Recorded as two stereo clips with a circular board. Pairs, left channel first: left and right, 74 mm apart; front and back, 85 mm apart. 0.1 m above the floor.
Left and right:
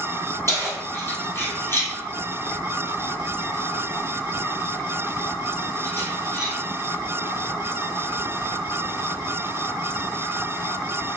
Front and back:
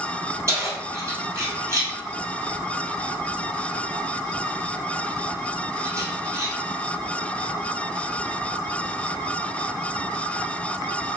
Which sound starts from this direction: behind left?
Keys jangling, at 0.5 s.